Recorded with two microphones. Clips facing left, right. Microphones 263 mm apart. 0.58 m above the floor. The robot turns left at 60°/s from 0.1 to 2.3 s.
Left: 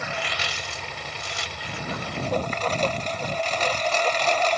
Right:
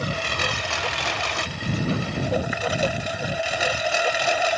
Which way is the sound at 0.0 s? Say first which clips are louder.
Right 5 dB; 40° right.